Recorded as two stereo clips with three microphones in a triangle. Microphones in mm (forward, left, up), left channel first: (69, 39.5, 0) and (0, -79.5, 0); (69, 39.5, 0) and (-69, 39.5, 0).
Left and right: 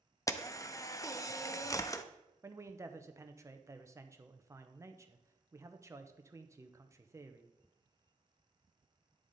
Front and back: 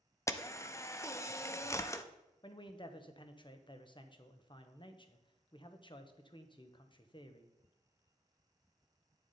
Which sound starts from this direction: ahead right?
A man speaking, at 2.4 s.